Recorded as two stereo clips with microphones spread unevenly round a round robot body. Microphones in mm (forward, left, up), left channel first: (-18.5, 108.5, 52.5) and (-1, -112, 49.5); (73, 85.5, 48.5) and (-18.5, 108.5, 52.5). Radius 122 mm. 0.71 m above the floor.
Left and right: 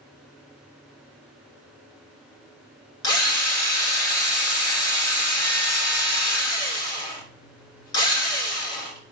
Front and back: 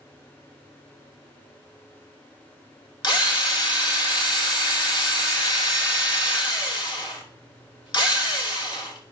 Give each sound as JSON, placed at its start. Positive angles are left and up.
{"t": 3.0, "sound": "a drill", "azimuth_deg": 20, "distance_m": 2.5}